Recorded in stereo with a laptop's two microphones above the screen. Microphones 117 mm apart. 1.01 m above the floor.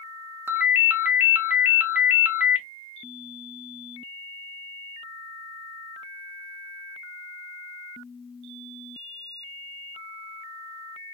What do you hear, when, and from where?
0.5 s a ringtone: 15° right (ahead or behind), 0.5 m